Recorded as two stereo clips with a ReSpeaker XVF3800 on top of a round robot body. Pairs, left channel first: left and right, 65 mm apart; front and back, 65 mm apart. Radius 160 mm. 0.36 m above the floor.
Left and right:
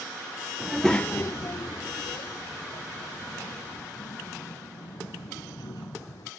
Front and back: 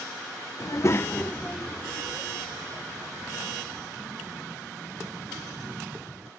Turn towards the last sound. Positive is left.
turn(degrees=110)